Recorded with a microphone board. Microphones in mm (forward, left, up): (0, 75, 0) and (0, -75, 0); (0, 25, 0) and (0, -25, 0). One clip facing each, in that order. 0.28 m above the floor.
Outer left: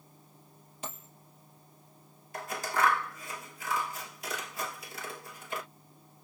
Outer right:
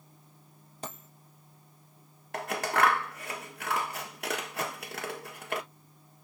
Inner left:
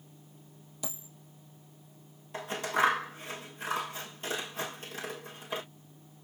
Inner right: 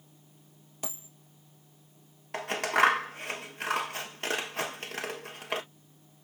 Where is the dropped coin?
40° right (ahead or behind), 3 m.